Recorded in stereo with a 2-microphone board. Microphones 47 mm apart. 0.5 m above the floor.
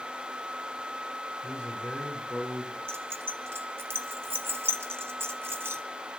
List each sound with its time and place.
1.4 s a man speaking: 40° left (ahead or behind), 6 m; by 2.8 s 30° left (ahead or behind), 6.5 m
2.9 s keys jangling: 60° right (ahead or behind), 1.8 m